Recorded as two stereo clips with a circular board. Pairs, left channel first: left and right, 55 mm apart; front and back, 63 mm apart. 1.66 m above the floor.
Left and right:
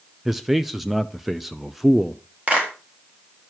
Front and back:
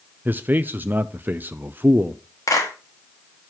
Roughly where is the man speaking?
Behind.